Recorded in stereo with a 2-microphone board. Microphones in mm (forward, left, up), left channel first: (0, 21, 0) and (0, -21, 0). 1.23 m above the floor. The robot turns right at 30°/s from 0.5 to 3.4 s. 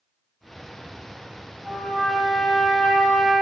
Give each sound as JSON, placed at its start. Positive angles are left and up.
{"t": 1.6, "sound": "a trumpet", "azimuth_deg": 0, "distance_m": 1.9}